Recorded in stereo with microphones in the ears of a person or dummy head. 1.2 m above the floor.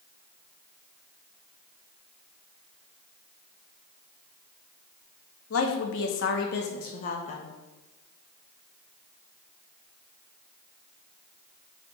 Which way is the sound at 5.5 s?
75° left (ahead or behind).